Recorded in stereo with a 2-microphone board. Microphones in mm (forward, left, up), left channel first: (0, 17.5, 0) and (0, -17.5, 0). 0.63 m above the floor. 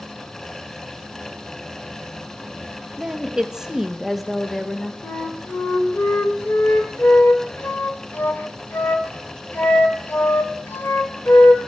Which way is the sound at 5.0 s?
70° left (ahead or behind).